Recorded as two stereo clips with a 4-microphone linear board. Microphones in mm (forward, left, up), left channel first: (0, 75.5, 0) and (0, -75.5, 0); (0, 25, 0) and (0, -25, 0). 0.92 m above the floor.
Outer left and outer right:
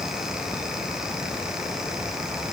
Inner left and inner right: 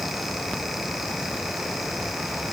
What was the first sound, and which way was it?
Only background noise.